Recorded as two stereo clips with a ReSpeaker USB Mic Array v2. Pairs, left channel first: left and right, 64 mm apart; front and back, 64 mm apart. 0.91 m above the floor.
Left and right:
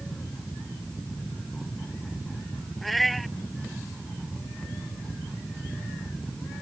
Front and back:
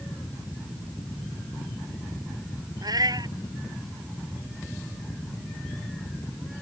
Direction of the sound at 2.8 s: Straight behind.